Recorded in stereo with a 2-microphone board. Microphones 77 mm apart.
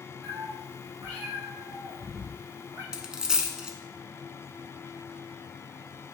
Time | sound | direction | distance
0.2 | a cat meowing | 55° right (ahead or behind) | 2 m
2.9 | a dropped coin | 10° right (ahead or behind) | 0.7 m